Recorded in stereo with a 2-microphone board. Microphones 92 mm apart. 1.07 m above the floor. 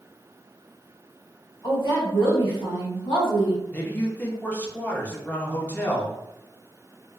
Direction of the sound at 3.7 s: 15° left (ahead or behind).